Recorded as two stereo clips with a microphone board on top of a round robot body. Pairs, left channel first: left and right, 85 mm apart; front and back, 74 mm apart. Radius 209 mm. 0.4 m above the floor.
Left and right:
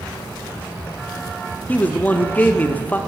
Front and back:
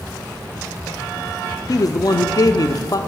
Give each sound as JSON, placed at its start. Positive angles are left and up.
{"t": 1.7, "sound": "a man speaking", "azimuth_deg": 25, "distance_m": 1.7}